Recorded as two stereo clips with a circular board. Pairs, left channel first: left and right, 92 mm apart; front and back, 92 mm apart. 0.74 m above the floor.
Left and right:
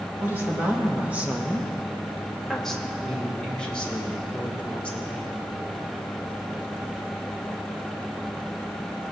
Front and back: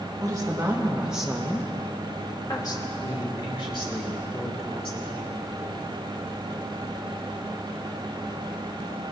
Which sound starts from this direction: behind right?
A woman speaking, at 0.2 s.